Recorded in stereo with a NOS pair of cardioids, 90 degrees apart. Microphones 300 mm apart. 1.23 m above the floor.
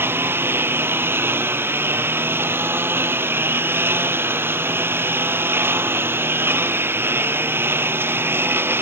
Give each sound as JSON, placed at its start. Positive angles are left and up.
{"t": 0.0, "sound": "a lawn mower", "azimuth_deg": -5}